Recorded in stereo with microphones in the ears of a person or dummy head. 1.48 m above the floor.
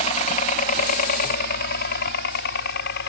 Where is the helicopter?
40° left (ahead or behind); by 3.1 s 60° left (ahead or behind).